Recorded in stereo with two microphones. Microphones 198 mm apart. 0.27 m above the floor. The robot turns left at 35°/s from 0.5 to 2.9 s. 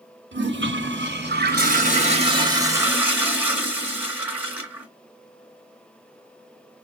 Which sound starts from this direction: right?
A toilet flushing, at 0.3 s.